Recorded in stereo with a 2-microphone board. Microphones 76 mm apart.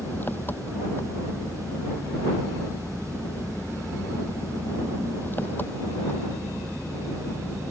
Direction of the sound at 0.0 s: 25° left (ahead or behind).